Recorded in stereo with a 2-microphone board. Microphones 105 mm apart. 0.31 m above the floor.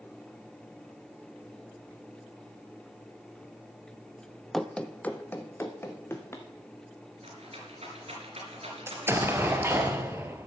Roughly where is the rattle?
Right.